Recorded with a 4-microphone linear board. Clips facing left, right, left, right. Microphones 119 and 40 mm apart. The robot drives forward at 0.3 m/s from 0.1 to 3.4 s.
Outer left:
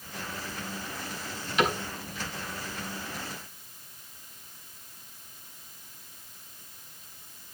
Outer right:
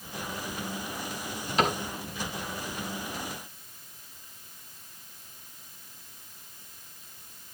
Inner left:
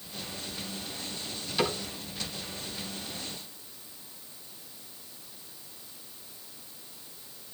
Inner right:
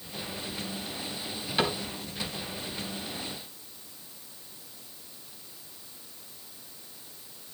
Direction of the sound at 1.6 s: 40° right (ahead or behind).